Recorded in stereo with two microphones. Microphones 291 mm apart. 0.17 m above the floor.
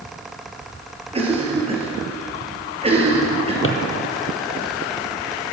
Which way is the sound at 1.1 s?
20° right (ahead or behind).